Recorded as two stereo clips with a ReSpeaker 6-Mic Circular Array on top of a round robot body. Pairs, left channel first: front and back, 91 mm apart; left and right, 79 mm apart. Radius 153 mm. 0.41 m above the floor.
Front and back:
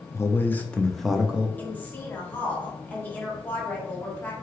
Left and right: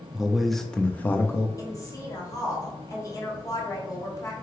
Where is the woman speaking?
65° left, 1.6 m.